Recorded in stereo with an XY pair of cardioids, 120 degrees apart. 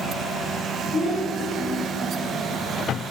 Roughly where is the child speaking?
Ahead left.